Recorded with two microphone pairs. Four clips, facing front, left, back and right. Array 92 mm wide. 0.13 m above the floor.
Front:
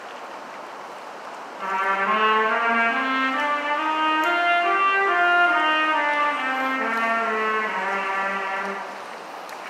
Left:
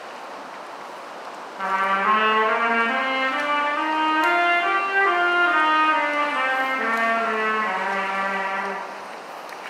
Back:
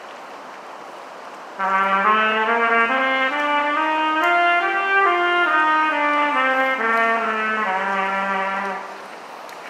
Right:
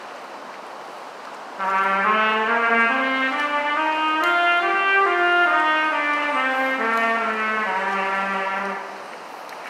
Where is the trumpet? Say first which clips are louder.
Right 1 dB, back 5 dB; 170° right, 2.5 m.